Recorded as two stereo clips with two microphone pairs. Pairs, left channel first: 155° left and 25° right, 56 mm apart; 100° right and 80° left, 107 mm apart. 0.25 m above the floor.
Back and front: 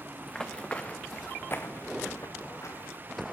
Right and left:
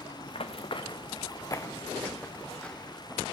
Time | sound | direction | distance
0.2 | running footsteps | 125° right | 1.8 m